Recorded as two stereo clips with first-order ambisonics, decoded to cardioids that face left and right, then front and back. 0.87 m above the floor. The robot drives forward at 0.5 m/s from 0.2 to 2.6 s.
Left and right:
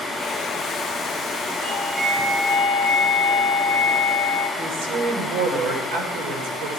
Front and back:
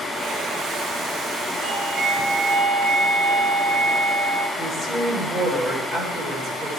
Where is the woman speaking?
105° right, 2.5 m.